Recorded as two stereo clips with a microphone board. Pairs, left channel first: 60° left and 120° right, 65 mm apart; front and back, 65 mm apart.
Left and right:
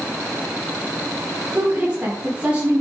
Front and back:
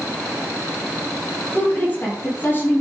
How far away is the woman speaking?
About 6.5 m.